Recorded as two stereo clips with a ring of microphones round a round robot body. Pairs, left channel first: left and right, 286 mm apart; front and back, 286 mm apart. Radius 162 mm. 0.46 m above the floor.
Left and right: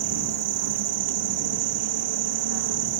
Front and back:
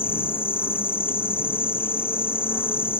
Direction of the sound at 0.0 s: 85° right.